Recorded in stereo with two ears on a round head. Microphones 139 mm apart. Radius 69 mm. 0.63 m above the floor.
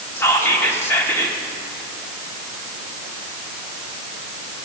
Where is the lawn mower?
No lawn mower in this recording.